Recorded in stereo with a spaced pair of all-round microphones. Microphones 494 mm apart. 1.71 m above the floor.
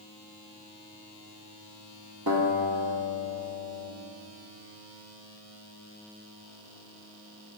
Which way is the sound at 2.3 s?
50° right (ahead or behind).